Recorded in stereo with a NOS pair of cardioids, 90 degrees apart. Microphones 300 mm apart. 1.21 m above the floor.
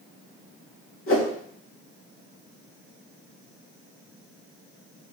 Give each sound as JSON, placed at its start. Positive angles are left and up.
{"t": 1.1, "sound": "a whoosh", "azimuth_deg": 45, "distance_m": 2.5}